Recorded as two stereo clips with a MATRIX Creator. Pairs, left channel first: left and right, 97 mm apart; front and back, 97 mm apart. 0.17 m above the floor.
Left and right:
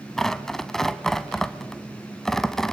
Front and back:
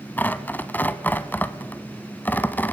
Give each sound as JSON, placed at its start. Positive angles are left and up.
{"t": 0.2, "sound": "tearing paper", "azimuth_deg": 10, "distance_m": 0.8}